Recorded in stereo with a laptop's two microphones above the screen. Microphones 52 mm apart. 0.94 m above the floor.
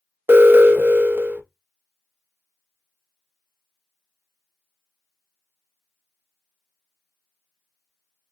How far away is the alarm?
About 0.7 m.